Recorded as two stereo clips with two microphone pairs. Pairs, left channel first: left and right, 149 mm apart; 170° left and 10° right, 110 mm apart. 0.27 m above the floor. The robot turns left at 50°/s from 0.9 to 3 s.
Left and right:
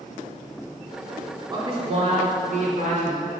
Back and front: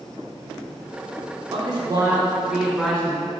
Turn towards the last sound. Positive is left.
turn(degrees=-110)